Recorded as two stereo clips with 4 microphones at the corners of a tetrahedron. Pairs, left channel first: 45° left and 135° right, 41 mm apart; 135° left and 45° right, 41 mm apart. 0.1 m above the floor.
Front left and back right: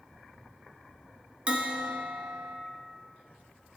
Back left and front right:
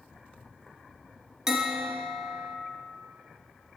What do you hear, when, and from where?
1.5 s a bell: 110° right, 0.6 m